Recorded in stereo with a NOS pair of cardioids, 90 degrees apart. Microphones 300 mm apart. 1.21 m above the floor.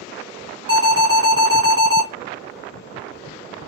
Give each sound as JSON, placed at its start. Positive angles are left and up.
{"t": 0.7, "sound": "an alarm", "azimuth_deg": -50, "distance_m": 2.5}